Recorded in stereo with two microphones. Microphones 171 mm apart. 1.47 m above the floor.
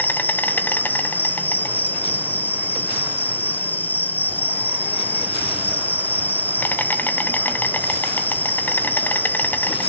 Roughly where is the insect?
Centre.